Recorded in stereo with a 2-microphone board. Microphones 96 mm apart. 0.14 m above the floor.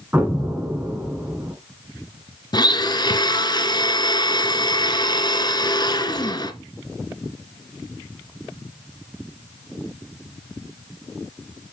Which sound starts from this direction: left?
A blender, at 2.5 s.